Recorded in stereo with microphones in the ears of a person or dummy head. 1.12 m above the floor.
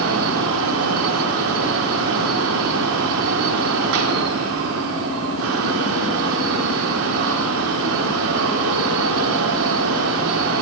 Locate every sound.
0.0 s a fan: 70° right (ahead or behind), 1.3 m